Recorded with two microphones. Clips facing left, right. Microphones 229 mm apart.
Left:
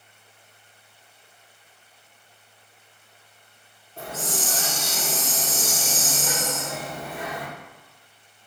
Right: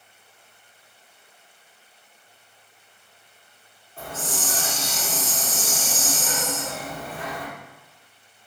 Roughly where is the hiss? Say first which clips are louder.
Left 1 dB; left.